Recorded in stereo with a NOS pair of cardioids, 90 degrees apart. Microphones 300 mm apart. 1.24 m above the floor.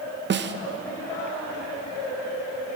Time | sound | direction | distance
0.3 | a snare drum | 40° right | 0.7 m